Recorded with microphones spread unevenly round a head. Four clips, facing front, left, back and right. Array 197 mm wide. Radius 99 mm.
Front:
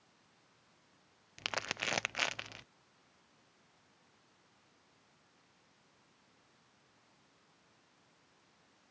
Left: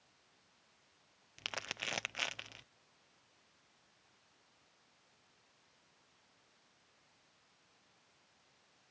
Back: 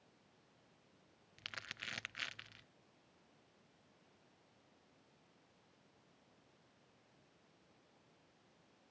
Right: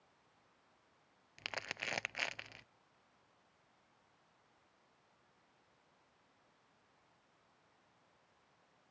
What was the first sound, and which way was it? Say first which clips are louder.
Crumpling: even, front 12 dB; 5° left.